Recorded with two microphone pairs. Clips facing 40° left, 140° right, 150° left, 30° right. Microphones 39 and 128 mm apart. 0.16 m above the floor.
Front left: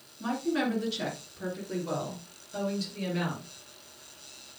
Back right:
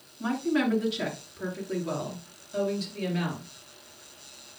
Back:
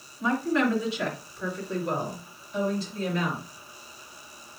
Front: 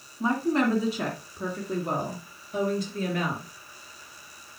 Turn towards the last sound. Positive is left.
turn(degrees=-55)